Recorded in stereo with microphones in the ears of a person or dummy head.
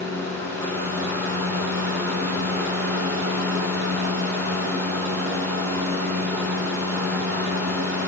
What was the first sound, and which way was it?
A fan, 70° right (ahead or behind).